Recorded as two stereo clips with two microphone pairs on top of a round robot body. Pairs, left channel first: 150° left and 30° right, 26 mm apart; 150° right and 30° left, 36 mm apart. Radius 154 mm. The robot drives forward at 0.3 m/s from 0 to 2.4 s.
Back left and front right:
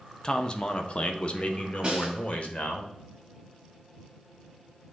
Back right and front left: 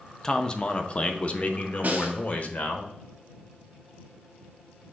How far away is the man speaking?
About 0.7 m.